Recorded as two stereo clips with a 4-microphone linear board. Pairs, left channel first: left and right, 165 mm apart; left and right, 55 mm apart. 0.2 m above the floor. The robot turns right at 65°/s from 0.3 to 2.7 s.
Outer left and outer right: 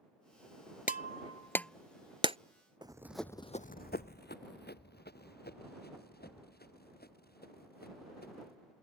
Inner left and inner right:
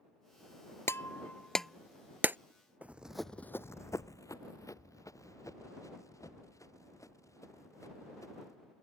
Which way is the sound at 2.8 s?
25° right (ahead or behind).